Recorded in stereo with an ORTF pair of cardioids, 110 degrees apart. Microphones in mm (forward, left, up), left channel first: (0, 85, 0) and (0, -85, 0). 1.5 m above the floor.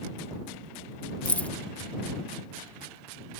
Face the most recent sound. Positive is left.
turn(degrees=10)